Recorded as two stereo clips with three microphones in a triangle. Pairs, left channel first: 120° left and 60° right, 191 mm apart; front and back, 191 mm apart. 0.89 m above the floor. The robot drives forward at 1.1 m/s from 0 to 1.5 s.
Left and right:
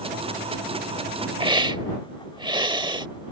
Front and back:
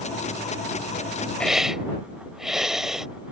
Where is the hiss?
75° right; by 3.1 s 95° right.